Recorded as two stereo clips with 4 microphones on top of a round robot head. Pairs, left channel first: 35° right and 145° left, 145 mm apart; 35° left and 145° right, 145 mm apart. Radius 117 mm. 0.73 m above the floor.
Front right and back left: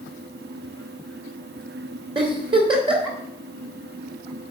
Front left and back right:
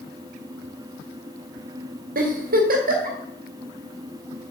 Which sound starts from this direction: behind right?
A giggle, at 2.1 s.